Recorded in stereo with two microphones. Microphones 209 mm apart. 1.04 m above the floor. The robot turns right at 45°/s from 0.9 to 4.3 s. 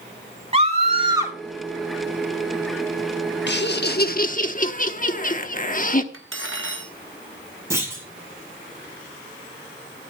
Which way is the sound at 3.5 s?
90° left.